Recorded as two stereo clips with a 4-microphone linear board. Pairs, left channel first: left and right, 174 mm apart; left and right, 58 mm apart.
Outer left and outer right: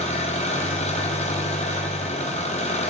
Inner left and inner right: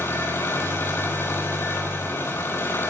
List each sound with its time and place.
0.0 s an engine running: 40° left (ahead or behind), 1.3 m